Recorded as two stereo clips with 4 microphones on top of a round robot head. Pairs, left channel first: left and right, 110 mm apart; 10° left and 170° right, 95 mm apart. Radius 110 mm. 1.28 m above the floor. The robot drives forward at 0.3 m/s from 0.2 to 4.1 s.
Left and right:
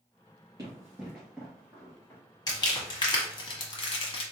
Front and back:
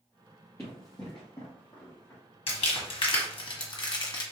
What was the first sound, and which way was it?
Running footsteps, 60° right.